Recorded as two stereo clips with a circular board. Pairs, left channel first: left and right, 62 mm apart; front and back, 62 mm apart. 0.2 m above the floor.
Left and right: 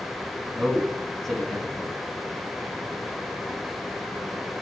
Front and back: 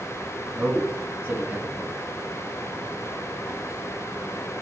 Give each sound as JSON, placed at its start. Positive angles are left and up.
{"t": 0.6, "sound": "a man speaking", "azimuth_deg": 175, "distance_m": 1.2}